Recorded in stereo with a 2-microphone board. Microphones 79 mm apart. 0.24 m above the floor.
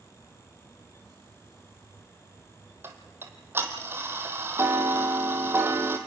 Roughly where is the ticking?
Right.